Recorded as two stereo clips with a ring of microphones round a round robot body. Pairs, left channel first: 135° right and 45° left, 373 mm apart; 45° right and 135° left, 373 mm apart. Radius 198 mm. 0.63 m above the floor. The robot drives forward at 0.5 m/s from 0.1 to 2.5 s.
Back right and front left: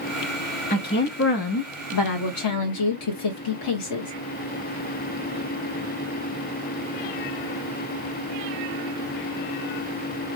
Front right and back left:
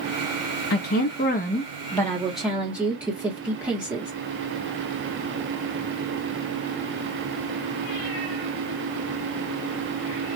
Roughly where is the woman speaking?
Right.